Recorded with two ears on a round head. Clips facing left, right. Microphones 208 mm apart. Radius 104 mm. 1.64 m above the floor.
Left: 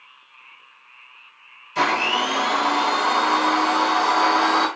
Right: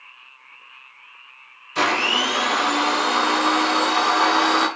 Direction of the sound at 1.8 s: 15° right (ahead or behind).